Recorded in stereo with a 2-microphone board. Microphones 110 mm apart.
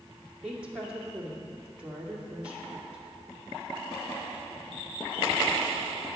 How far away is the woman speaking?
About 2.0 m.